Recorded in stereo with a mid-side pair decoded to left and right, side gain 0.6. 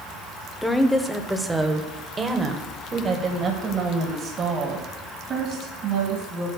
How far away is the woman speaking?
About 1.3 m.